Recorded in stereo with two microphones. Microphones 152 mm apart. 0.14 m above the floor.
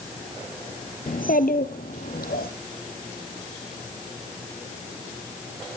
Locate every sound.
1.1 s a child speaking: 65° left (ahead or behind), 1.7 m; by 2.5 s 80° left, 3.5 m